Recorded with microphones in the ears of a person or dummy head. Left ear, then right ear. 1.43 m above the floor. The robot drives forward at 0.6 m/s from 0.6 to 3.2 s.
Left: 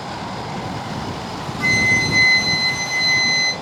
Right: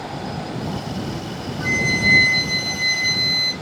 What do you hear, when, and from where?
1.6 s a flute: 45° left (ahead or behind), 0.7 m; by 3.5 s 20° left (ahead or behind), 1.5 m